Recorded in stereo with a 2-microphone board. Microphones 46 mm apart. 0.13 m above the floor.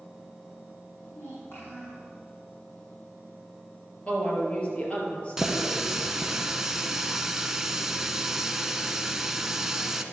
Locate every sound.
1.1 s a child speaking: 65° left (ahead or behind), 5 m
4.1 s a woman speaking: 30° left (ahead or behind), 3.5 m
5.4 s a running tap: 10° right (ahead or behind), 0.7 m